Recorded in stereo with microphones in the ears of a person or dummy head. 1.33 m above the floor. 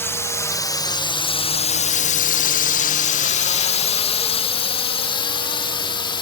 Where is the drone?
10° left (ahead or behind); by 6.2 s 25° left (ahead or behind).